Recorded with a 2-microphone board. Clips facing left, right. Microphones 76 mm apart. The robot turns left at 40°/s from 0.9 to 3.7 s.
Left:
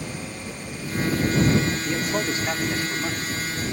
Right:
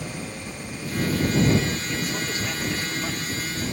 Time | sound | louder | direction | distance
1.9 | a man speaking | left 4 dB | 70° left | ?